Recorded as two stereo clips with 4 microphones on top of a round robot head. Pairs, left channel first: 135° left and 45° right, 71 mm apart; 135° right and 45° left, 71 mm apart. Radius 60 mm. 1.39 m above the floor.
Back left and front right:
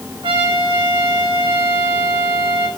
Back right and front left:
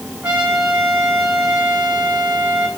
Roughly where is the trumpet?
Ahead right.